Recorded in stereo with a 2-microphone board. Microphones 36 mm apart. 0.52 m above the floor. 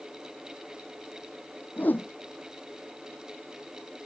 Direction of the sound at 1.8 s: 60° left (ahead or behind).